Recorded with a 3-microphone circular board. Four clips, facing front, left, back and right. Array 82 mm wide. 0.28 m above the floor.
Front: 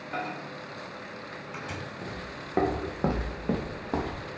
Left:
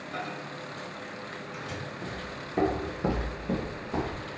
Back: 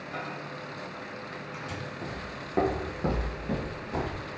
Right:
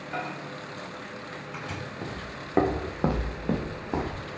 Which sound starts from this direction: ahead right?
A microwave, at 0.1 s.